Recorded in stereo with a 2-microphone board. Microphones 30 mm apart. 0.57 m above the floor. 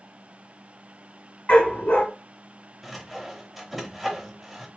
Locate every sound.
1.5 s a dog barking: 75° left (ahead or behind), 1.3 m
2.8 s sawing: 5° right (ahead or behind), 0.6 m